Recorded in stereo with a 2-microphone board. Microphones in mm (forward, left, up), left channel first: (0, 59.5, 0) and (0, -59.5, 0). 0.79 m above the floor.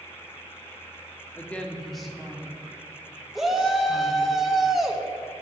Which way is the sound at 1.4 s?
15° left (ahead or behind).